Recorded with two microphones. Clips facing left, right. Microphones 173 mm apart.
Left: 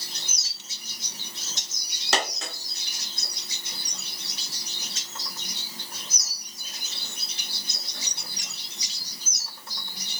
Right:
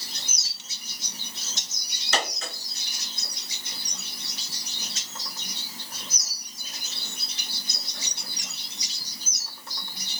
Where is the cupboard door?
No cupboard door in this recording.